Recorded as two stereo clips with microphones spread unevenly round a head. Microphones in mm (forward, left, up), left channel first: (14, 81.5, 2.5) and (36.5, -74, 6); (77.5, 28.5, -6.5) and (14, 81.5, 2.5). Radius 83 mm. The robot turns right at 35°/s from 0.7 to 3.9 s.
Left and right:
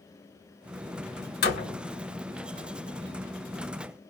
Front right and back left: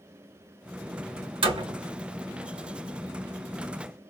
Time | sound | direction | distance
1.4 | a door slam | 135° left | 1.5 m